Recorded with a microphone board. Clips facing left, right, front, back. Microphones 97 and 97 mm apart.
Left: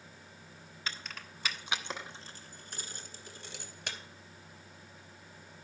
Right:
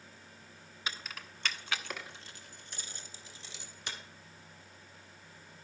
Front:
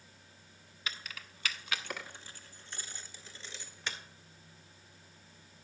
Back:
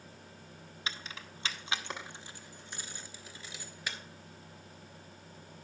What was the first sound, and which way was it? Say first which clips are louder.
Keys jangling: right 1 dB, back 2 dB; 155° right.